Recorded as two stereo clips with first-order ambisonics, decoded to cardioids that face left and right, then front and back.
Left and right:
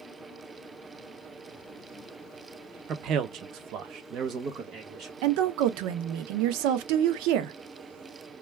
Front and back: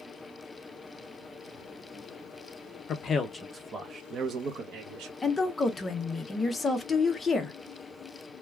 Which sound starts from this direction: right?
A woman speaking, at 5.2 s.